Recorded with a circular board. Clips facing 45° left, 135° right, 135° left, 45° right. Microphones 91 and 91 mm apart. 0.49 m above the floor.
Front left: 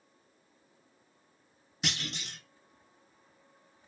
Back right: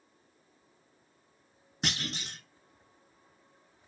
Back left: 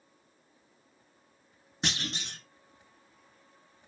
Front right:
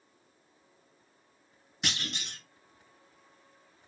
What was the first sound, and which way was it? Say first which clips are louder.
A clunk: back right 2 dB, back left 2 dB; 175° right.